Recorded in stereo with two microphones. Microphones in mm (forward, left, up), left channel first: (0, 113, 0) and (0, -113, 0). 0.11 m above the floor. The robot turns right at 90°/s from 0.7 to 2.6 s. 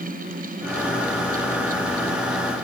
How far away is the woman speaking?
I don't hear a woman speaking.